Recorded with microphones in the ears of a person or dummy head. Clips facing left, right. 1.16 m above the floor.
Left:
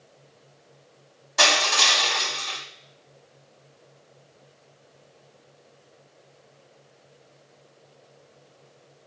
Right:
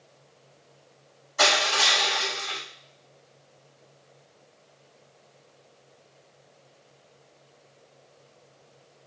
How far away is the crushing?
About 4 m.